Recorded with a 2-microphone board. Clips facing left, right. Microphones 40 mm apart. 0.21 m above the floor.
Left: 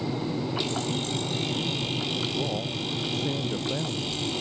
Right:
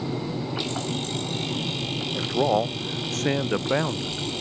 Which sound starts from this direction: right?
A man speaking, at 2.1 s.